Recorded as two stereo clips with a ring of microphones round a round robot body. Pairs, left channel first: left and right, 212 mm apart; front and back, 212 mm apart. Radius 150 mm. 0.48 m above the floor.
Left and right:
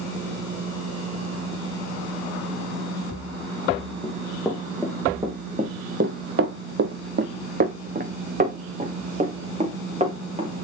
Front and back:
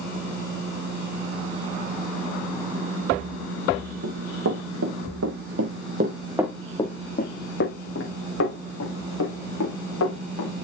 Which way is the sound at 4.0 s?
175° left.